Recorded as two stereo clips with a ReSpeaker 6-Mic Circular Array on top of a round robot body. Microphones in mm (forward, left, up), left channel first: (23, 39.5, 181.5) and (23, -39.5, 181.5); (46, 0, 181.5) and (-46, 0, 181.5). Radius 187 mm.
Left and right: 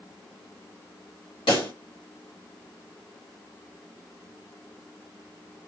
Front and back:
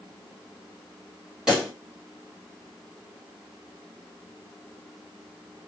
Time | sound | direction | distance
1.5 | a pop | 95° left | 1.1 m